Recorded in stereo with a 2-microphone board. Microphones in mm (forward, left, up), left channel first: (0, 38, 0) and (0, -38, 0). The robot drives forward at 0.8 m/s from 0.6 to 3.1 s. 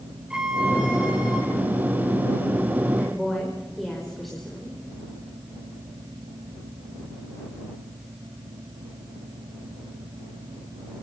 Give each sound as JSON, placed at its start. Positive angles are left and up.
{"t": 0.3, "sound": "a violin", "side_deg": -10, "distance_m": 5.5}
{"t": 3.0, "sound": "a woman speaking", "side_deg": 0, "distance_m": 5.5}